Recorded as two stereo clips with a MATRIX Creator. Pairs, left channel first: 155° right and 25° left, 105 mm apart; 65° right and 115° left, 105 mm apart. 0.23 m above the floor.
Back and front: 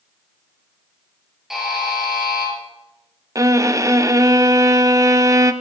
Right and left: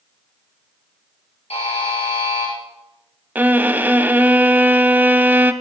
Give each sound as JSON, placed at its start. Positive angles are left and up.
{"t": 1.5, "sound": "a buzzer", "azimuth_deg": -65, "distance_m": 4.0}
{"t": 3.4, "sound": "a violin", "azimuth_deg": 50, "distance_m": 0.6}